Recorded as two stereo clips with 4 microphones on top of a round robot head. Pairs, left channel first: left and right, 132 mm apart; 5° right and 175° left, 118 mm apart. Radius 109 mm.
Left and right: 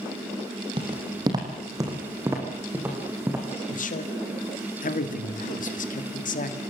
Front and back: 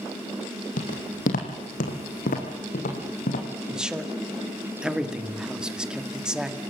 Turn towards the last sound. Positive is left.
turn(degrees=90)